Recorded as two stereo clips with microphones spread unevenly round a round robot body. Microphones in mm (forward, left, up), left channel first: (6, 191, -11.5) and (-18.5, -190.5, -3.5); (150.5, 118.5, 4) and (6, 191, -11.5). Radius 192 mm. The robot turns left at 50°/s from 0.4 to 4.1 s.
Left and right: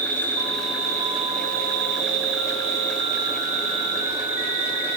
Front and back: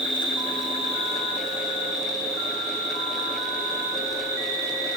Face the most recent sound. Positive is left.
turn(degrees=-175)